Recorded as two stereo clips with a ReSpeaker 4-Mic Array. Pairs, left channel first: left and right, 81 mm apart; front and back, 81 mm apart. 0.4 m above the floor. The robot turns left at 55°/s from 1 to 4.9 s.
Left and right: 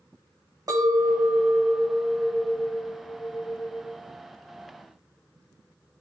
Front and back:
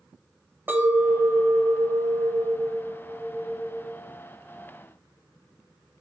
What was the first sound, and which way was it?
A clink, 120° right.